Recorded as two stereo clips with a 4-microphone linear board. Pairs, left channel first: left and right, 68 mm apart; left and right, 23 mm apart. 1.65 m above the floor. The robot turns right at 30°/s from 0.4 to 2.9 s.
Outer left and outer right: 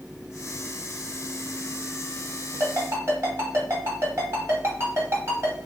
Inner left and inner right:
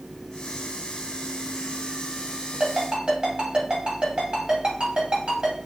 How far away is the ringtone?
About 1.5 m.